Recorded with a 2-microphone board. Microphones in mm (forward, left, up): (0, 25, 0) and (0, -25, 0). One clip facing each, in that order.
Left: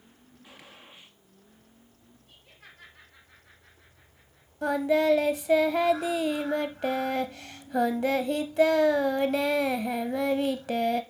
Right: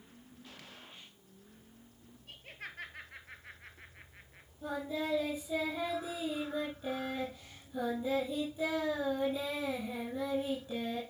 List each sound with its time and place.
0.4 s a gunshot: 20° left (ahead or behind), 1.9 m
2.3 s laughter: 55° right (ahead or behind), 2.5 m
4.6 s singing: 75° left (ahead or behind), 1.2 m